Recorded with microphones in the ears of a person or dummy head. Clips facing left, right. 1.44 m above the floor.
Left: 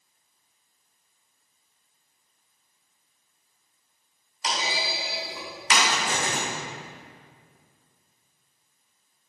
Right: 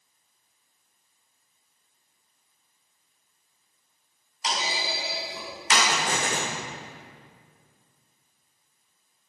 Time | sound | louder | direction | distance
4.4 | a clunk | left 1 dB | 65° left (ahead or behind) | 2 m
5.9 | an explosion | right 1 dB | 55° right (ahead or behind) | 1.6 m